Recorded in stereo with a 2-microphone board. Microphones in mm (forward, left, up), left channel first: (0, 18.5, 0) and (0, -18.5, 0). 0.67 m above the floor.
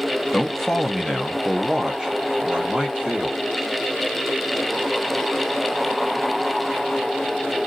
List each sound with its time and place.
0.3 s a man speaking: 10° left (ahead or behind), 0.7 m; by 3.4 s 20° right (ahead or behind), 1.5 m